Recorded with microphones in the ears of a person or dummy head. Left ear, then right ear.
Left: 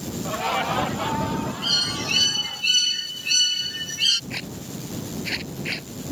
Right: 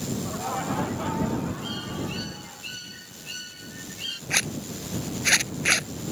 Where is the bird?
60° left (ahead or behind).